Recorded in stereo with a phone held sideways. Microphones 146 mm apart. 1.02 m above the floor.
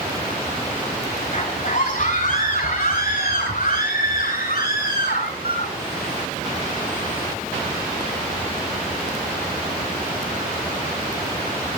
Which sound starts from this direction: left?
A scream, at 1.3 s.